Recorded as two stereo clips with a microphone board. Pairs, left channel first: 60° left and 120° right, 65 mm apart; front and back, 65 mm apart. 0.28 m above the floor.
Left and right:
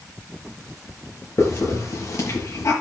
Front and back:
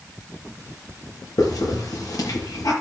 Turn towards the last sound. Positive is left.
turn(degrees=20)